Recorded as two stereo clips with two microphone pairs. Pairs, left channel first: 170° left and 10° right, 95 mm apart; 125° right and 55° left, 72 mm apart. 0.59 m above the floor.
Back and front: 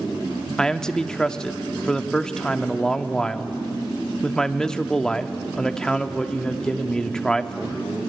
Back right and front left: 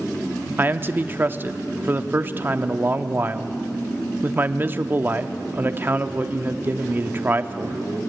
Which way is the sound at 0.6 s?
95° left.